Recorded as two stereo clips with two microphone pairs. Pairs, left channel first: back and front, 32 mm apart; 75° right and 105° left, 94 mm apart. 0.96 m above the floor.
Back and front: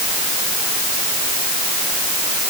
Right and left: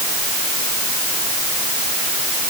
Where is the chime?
I don't hear a chime.